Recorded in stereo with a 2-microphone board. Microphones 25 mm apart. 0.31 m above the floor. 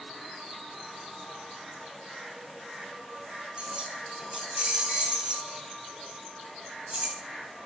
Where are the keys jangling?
45° right (ahead or behind), 1.6 m.